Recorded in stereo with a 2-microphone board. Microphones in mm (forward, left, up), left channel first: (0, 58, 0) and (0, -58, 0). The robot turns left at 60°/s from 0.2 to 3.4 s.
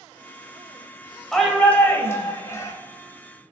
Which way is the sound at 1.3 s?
Centre (ahead or behind).